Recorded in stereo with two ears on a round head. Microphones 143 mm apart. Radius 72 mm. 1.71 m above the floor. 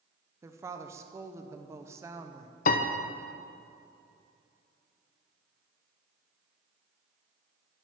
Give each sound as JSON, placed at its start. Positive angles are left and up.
{"t": 0.4, "sound": "a woman speaking", "side_deg": -20, "distance_m": 0.8}
{"t": 2.7, "sound": "a piano", "side_deg": 50, "distance_m": 0.6}